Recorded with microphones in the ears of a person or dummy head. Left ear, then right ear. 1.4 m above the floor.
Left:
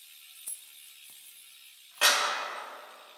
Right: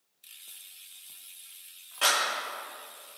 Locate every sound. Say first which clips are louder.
0.3 s keys jangling: right 4 dB; 65° left (ahead or behind), 0.9 m; by 2.2 s 20° right (ahead or behind), 1.8 m
2.0 s a clap: left 1 dB; 15° left (ahead or behind), 2.5 m